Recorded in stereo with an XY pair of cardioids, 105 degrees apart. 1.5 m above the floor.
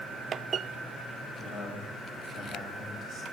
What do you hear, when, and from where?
1.4 s a man speaking: 60° left, 2 m